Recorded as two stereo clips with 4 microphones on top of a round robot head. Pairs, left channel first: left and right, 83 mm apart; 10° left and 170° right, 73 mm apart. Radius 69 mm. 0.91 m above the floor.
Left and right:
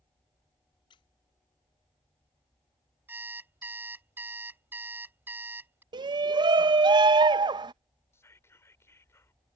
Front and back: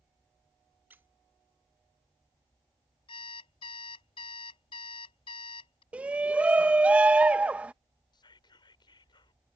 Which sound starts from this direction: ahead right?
An alarm clock, at 3.1 s.